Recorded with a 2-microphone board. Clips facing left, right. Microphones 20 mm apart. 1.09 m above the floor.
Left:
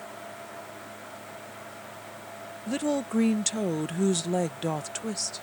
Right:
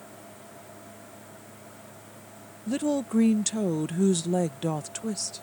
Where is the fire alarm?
I don't hear a fire alarm.